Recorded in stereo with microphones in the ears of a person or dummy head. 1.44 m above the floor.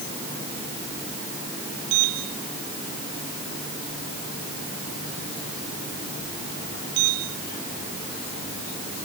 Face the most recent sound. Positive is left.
No sound to turn to.